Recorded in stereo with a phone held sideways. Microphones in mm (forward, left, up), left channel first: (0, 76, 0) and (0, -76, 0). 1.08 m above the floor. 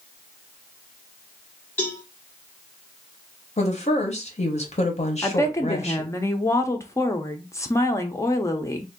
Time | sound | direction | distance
1.8 | a cowbell | 10° left (ahead or behind) | 1.9 m
3.6 | a woman speaking | 45° left (ahead or behind) | 0.9 m
5.2 | a woman speaking | 20° left (ahead or behind) | 0.5 m